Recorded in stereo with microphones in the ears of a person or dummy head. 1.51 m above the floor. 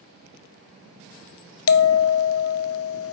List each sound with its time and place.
1.7 s a bell: 75° left (ahead or behind), 0.5 m